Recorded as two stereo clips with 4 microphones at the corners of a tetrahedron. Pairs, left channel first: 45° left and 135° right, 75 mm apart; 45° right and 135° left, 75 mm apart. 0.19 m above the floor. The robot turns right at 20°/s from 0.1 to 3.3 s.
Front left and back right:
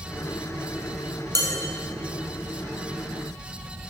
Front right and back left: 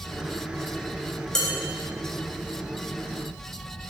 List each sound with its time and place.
1.4 s dishes clattering: 125° right, 1.4 m